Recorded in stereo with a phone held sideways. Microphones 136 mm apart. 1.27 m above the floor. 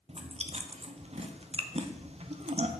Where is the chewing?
50° right (ahead or behind), 0.6 m.